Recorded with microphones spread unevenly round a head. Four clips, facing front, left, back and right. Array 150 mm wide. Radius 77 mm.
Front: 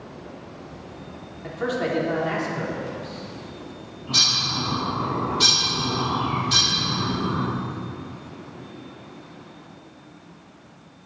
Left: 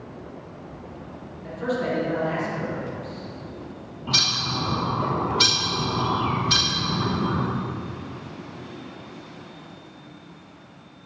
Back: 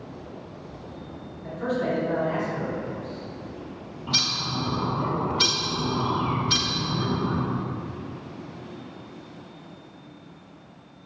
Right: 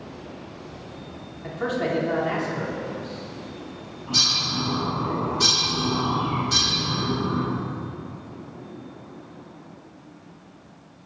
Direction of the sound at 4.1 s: 105° left.